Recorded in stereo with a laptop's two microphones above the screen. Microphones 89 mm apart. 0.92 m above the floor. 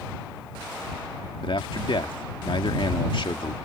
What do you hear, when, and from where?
1.4 s a man speaking: 70° left (ahead or behind)